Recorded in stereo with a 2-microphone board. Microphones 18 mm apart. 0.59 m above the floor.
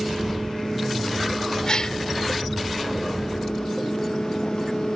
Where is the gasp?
40° left (ahead or behind).